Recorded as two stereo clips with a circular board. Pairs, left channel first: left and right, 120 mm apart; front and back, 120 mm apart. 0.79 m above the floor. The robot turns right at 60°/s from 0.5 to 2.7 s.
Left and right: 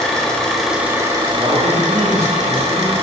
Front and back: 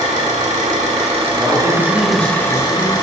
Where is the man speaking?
125° right, 1.9 m; by 2.9 s 45° right, 1.9 m.